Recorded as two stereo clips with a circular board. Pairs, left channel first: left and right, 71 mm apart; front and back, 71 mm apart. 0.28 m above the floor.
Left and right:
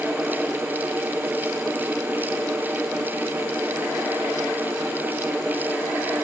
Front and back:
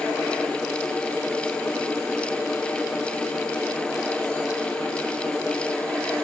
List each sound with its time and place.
Only background noise.